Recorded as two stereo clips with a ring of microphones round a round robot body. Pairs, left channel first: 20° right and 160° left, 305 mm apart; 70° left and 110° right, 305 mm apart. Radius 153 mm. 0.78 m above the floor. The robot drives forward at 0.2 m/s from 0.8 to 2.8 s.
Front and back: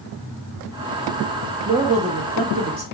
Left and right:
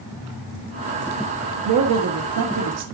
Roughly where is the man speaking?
Behind right.